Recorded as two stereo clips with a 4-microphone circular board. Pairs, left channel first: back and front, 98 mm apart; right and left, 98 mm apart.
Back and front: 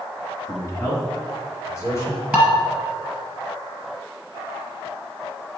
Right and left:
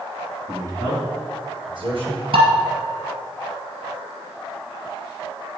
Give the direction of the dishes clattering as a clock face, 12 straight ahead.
9 o'clock.